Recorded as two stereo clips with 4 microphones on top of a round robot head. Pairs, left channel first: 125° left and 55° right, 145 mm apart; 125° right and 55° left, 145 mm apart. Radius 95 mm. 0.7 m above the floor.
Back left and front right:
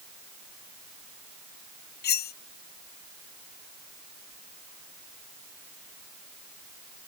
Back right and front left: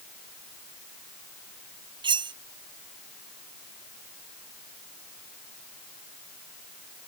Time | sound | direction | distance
2.0 | cutlery clinking | 115° left | ?